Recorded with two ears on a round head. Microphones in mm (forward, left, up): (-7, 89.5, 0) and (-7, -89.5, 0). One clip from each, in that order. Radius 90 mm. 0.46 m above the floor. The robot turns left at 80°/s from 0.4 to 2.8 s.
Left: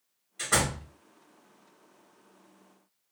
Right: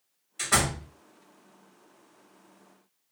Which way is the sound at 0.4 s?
155° right.